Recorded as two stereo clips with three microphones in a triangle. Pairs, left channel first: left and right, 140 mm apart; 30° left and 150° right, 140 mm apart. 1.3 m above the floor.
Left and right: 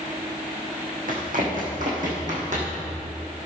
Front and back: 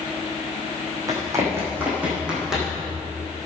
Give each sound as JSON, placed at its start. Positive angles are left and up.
{"t": 1.1, "sound": "running footsteps", "azimuth_deg": -85, "distance_m": 4.5}